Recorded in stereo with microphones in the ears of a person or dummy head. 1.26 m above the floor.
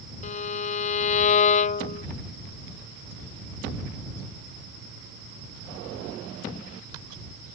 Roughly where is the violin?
Left.